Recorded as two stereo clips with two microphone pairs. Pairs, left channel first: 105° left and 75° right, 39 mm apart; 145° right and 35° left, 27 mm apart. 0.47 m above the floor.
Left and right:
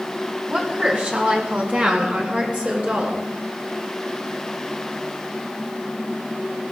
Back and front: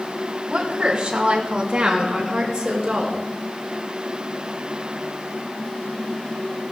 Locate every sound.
0.5 s a woman speaking: 20° right, 2.5 m; by 3.2 s 25° right, 4.5 m